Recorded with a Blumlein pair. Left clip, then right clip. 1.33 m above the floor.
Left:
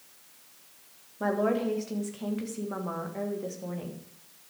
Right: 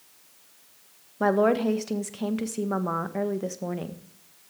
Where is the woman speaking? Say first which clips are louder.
Right 6 dB; 65° right, 1.4 m.